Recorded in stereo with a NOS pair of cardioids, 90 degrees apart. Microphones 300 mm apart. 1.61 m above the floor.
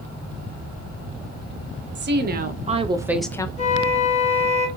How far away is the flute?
About 1.7 m.